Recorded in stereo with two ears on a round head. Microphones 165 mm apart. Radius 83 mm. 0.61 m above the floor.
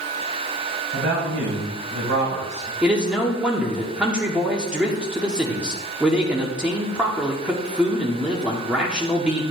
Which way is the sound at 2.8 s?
5° right (ahead or behind).